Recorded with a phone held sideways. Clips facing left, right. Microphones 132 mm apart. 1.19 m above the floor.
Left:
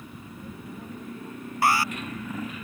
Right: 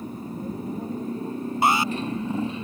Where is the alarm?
20° right (ahead or behind).